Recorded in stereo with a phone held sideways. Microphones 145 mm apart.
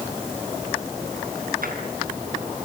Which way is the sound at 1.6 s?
80° right.